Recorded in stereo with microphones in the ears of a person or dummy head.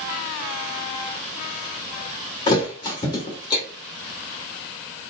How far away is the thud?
About 1.6 m.